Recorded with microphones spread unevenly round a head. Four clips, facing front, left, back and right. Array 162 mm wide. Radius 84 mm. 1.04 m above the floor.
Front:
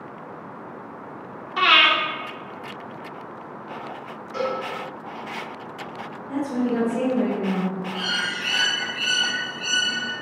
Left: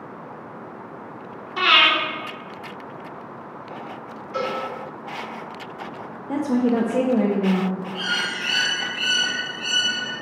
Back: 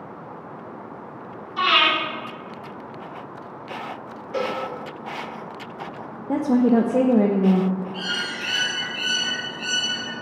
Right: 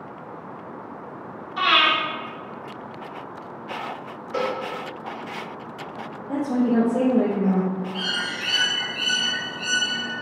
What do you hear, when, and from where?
1.6 s breathing: 35° left, 2.5 m
4.3 s a cowbell: 125° right, 1.5 m
6.3 s a woman speaking: 170° left, 0.6 m
7.9 s a bird: 135° right, 1.5 m